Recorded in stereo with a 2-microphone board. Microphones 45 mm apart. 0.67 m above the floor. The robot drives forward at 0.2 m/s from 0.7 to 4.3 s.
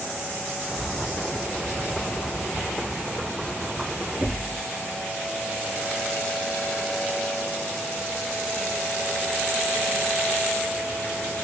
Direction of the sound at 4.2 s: 25° right (ahead or behind).